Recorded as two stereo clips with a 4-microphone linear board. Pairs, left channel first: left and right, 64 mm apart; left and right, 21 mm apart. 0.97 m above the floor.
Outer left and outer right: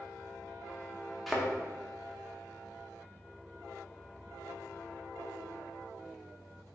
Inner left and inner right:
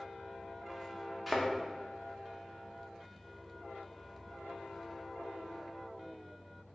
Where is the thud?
Centre (ahead or behind), 0.7 m.